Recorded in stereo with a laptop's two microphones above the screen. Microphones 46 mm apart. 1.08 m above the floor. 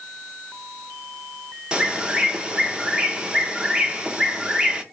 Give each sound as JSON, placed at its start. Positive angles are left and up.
{"t": 1.7, "sound": "a bird", "side_deg": -20, "distance_m": 0.6}